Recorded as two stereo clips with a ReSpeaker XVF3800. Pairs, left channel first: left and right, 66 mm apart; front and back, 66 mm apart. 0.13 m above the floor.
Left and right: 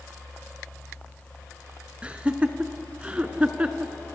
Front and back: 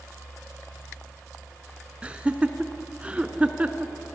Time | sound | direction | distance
2.0 | laughter | 135° right | 1.2 m